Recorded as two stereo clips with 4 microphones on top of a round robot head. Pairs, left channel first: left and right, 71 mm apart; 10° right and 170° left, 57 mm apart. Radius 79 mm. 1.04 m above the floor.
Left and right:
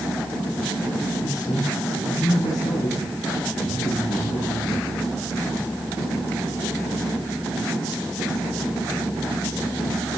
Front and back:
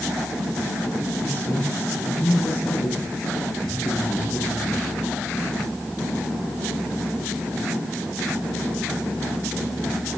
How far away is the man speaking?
About 8.5 m.